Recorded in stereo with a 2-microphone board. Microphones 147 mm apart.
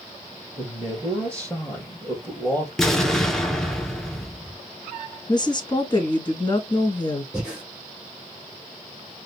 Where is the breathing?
5° right (ahead or behind), 2.5 m.